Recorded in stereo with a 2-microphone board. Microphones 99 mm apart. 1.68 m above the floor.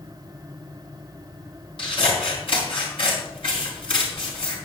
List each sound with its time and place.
1.8 s scissors: 70° left (ahead or behind), 4 m